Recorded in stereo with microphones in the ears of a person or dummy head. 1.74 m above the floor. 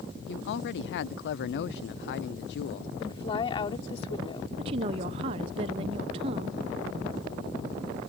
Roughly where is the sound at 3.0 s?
Left.